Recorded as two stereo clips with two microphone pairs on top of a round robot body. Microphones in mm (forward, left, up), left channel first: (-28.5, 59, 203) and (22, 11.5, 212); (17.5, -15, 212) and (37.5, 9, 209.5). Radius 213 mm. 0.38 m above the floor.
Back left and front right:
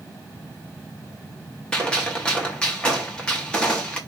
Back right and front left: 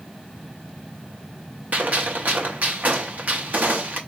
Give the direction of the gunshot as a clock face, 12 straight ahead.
10 o'clock.